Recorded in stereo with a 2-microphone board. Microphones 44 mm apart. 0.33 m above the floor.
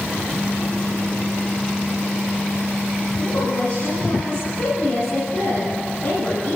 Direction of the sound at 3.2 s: 70° left (ahead or behind).